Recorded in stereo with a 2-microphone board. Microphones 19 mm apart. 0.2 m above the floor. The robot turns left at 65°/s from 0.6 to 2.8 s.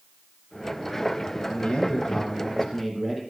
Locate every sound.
1.5 s a man speaking: 80° left, 5.5 m; by 3.2 s 5° right, 5.5 m